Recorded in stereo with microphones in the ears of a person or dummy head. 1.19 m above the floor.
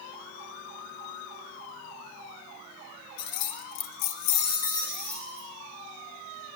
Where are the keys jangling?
55° left (ahead or behind), 0.8 m; by 5.5 s centre (ahead or behind), 1.2 m.